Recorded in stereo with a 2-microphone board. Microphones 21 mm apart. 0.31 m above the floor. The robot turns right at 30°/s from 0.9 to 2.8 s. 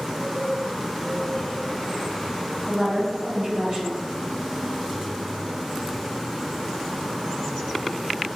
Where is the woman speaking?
30° right (ahead or behind), 1.0 m.